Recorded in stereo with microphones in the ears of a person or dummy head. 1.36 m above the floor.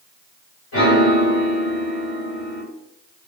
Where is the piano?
55° left (ahead or behind), 1.8 m.